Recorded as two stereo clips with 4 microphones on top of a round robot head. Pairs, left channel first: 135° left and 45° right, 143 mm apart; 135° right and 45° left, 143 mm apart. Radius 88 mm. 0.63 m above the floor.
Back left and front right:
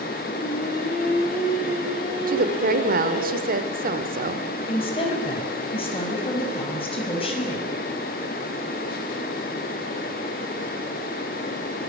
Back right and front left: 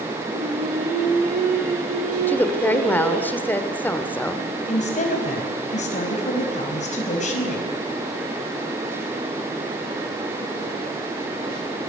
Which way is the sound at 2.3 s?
55° right.